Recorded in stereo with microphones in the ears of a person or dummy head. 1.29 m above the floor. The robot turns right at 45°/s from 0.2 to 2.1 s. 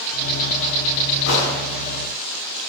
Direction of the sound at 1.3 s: 80° left.